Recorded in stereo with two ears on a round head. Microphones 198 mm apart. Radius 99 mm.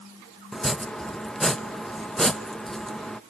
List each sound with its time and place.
0.5 s chopping: centre (ahead or behind), 0.9 m